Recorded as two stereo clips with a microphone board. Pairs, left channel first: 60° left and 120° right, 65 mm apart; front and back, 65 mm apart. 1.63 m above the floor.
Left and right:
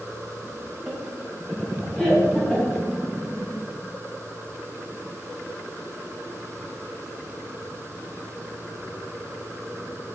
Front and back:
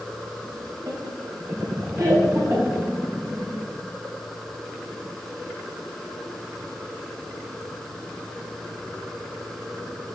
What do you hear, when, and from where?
0.9 s laughter: 160° left, 1.7 m; by 2.9 s 135° left, 3.5 m